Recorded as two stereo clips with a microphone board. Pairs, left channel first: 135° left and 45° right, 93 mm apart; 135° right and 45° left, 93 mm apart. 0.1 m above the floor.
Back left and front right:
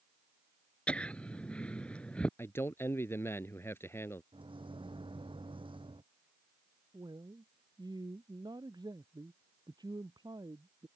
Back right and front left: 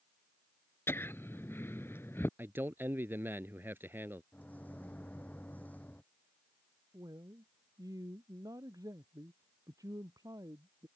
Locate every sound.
0.9 s laughter: 160° right
2.4 s a man speaking: 95° left
4.3 s a microwave: 65° right
6.9 s a man speaking: 5° right